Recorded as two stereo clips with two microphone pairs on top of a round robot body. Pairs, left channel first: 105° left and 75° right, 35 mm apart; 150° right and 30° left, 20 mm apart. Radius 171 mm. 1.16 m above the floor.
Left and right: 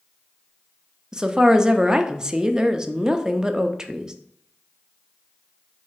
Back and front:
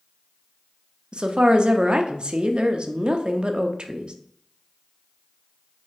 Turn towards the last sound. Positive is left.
turn(degrees=-10)